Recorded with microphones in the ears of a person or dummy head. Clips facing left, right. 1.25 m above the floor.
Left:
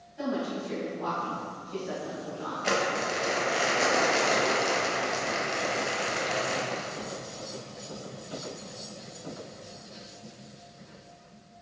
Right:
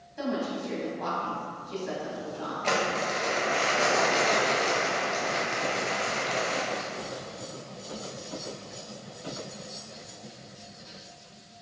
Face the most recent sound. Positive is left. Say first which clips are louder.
# even
turn(degrees=10)  # may be behind; listen again after turning